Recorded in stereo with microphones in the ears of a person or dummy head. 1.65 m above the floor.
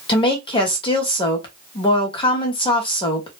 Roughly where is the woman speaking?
Left.